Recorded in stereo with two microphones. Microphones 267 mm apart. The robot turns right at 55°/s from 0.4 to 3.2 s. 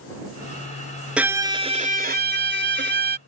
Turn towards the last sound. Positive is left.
turn(degrees=-60)